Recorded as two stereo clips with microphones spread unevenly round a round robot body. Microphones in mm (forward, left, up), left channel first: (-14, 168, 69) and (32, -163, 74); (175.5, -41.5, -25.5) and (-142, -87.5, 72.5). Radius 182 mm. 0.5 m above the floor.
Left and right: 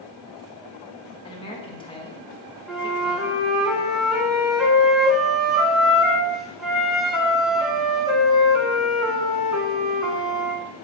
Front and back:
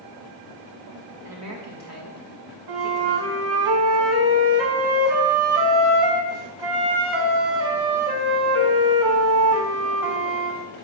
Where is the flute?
170° right, 1.3 m.